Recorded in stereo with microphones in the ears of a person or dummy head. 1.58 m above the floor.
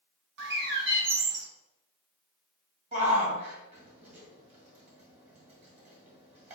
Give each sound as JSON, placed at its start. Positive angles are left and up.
{"t": 0.4, "sound": "a bird", "side_deg": -60, "distance_m": 0.7}
{"t": 2.9, "sound": "a shout", "side_deg": -40, "distance_m": 1.8}